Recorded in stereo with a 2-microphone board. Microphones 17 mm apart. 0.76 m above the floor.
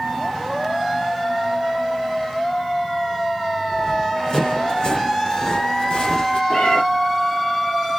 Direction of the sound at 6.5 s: 70° left (ahead or behind).